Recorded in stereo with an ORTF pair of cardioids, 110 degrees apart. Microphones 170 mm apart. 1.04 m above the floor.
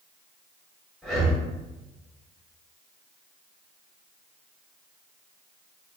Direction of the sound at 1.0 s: Straight ahead.